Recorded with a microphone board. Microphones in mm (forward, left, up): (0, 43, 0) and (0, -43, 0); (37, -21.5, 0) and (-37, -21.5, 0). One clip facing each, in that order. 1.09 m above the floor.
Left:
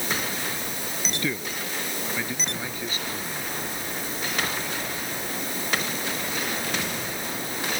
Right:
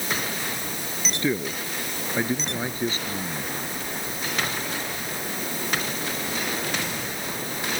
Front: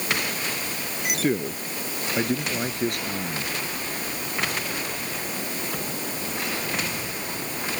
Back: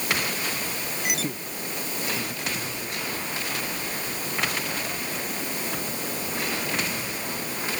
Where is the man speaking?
25° right; by 3.6 s 30° right.